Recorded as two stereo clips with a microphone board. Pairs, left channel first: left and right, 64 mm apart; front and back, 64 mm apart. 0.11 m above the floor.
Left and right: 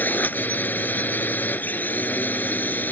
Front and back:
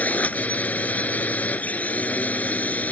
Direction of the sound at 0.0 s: 50° left.